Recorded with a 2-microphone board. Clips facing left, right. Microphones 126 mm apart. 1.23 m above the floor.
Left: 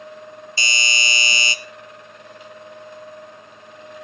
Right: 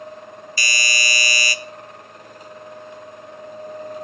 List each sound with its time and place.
0.6 s a doorbell: 25° left (ahead or behind), 0.6 m